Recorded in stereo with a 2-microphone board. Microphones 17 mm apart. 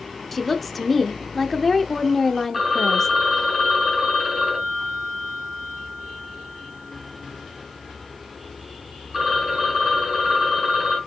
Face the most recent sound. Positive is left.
turn(degrees=-20)  # may be behind; listen again after turning